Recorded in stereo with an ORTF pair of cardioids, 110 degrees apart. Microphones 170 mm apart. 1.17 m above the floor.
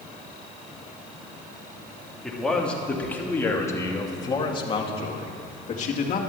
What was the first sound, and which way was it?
A man speaking, straight ahead.